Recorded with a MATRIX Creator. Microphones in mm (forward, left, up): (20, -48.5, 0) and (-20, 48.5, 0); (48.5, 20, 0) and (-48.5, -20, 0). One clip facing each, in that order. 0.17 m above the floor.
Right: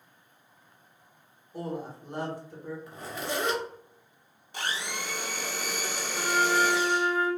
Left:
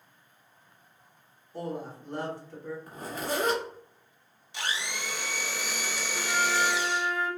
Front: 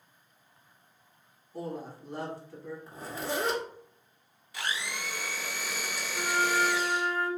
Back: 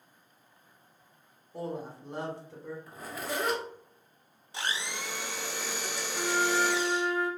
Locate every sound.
1.5 s a woman speaking: 120° right, 1.2 m
2.9 s a zipper: 75° left, 1.1 m
4.5 s a blender: 100° right, 0.5 m
6.1 s a flute: 95° right, 0.8 m